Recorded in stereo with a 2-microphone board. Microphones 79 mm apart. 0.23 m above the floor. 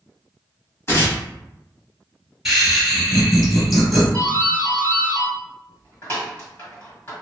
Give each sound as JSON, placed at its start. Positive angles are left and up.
{"t": 0.9, "sound": "tearing paper", "side_deg": 30, "distance_m": 0.9}
{"t": 2.5, "sound": "laughter", "side_deg": -5, "distance_m": 1.1}
{"t": 4.1, "sound": "a doorbell", "side_deg": 30, "distance_m": 1.5}